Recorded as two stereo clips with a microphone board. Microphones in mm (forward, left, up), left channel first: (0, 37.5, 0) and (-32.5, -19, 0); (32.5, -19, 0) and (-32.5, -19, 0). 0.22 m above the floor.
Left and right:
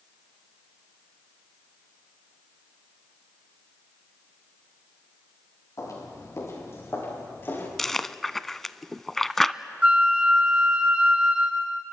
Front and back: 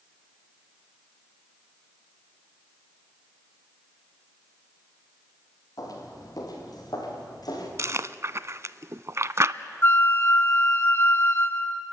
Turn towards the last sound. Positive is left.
turn(degrees=-50)